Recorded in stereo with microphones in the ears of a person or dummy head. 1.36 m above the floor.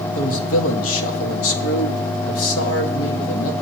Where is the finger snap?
I don't hear a finger snap.